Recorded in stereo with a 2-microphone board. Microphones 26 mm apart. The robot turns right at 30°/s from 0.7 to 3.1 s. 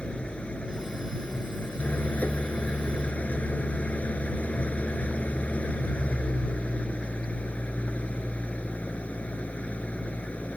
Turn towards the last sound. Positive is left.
turn(degrees=120)